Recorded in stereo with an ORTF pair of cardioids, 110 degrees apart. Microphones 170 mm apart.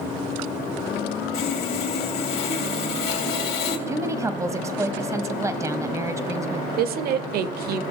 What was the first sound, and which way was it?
Sawing, 65° left.